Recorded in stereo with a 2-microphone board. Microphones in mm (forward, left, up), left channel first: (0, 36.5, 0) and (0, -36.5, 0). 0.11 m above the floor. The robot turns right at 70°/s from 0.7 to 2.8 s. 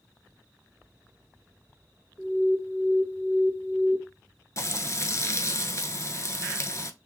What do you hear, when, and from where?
2.2 s an alarm: 55° left, 1.0 m; by 4.0 s 100° left, 1.0 m
4.6 s frying: 45° left (ahead or behind), 0.5 m